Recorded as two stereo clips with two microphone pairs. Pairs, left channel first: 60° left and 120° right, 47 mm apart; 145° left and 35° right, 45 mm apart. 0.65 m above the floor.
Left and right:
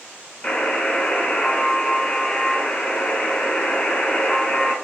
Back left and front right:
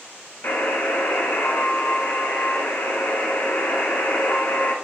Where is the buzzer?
110° left, 0.6 m.